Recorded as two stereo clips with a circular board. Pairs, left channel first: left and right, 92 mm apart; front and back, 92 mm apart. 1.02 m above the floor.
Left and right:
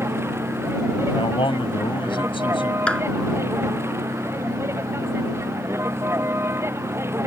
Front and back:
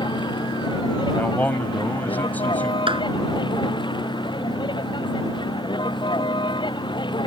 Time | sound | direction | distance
0.0 | a vehicle | 30° right | ?
1.2 | a man speaking | 70° left | ?
2.9 | a clap | 170° left | ?